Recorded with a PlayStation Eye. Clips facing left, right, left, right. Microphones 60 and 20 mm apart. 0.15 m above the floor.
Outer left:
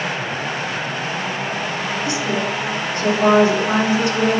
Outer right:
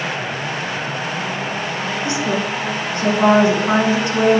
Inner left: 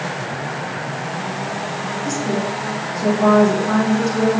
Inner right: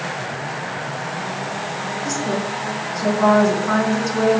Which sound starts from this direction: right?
A woman speaking, at 2.0 s.